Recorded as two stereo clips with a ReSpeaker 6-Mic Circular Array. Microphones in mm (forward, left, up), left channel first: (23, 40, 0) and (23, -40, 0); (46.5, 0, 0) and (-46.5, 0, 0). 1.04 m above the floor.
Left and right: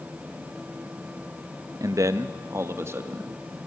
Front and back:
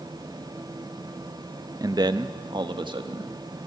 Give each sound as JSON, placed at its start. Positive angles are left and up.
{"t": 1.8, "sound": "a man speaking", "azimuth_deg": -130, "distance_m": 0.7}